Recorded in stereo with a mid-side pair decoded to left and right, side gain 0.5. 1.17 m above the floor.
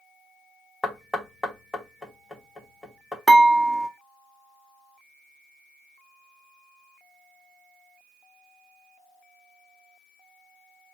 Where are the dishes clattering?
10° left, 1.3 m.